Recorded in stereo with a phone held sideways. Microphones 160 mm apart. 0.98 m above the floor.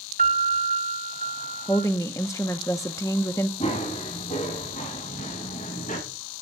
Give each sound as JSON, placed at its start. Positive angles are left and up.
{"t": 0.2, "sound": "a piano", "side_deg": -60, "distance_m": 1.6}
{"t": 1.7, "sound": "a woman speaking", "side_deg": 20, "distance_m": 0.7}
{"t": 3.6, "sound": "running footsteps", "side_deg": 50, "distance_m": 7.0}